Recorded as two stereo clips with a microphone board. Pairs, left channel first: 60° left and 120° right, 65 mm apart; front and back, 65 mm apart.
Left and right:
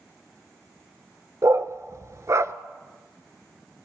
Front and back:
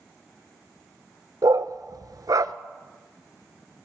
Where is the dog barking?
160° right, 0.8 m.